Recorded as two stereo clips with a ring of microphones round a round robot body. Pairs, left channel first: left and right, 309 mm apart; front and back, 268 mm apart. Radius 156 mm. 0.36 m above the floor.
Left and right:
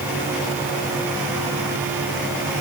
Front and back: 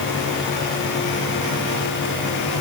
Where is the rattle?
I don't hear a rattle.